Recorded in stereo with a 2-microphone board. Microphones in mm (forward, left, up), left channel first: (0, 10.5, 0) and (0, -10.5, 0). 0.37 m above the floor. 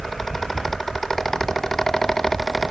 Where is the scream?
I don't hear a scream.